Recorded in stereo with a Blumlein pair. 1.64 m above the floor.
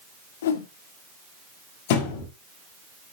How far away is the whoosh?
About 1.4 m.